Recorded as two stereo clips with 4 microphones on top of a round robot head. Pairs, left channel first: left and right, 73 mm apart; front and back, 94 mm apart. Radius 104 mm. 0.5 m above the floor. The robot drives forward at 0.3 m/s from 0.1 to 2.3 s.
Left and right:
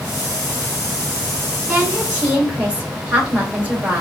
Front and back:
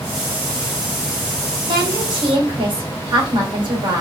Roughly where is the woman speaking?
Behind.